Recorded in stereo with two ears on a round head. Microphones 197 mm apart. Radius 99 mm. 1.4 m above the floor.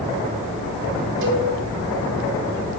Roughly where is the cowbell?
Right.